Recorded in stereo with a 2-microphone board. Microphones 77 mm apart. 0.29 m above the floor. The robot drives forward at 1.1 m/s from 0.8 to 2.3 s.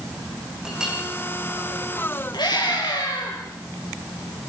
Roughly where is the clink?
Centre.